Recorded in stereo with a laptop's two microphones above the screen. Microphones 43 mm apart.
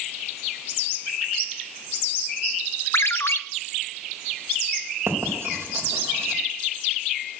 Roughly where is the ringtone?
Left.